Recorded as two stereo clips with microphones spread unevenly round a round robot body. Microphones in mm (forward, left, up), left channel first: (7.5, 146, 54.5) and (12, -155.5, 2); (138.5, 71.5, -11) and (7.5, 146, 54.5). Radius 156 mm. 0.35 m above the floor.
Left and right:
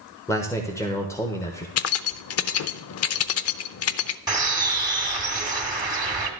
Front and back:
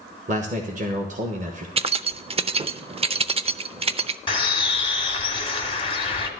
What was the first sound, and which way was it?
A man speaking, straight behind.